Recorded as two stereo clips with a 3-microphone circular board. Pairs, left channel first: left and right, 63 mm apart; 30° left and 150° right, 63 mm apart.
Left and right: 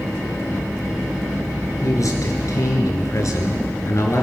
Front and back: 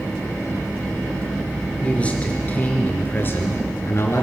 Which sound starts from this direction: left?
A man speaking, at 1.8 s.